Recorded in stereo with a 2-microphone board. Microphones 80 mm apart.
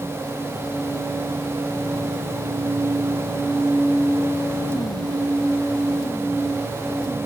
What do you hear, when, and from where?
Only background noise.